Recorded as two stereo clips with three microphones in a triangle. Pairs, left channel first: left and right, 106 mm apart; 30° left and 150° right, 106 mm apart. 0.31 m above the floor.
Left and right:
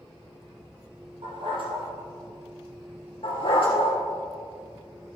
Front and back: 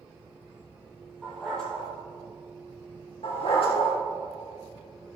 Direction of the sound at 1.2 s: 55° right.